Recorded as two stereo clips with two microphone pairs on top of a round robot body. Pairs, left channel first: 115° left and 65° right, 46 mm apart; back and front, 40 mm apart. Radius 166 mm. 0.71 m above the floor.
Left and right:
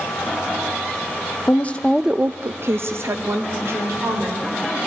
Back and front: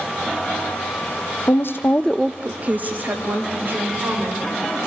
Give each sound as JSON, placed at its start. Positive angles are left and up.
{"t": 1.5, "sound": "a woman speaking", "azimuth_deg": 170, "distance_m": 0.9}